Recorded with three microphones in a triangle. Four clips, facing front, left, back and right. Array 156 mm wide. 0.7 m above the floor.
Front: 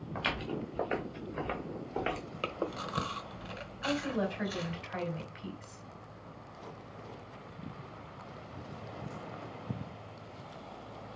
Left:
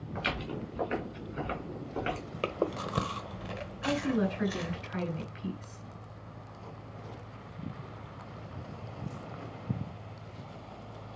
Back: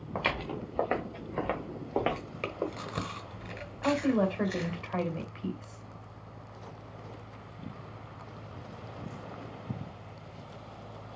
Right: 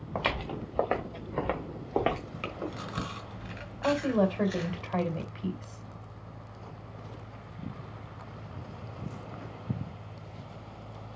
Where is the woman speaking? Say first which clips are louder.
Right 4 dB, back 6 dB; 110° right, 3 m.